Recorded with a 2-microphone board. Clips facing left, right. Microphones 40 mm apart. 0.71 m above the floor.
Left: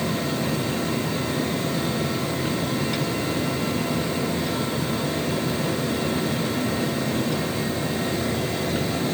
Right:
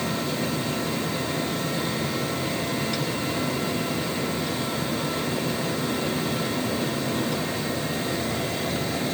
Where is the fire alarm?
I don't hear a fire alarm.